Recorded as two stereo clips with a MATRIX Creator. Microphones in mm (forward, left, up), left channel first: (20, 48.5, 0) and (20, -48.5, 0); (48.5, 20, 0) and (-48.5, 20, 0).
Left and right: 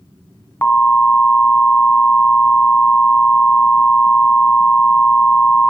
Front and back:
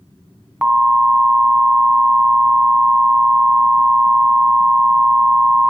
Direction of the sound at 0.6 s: 120° left.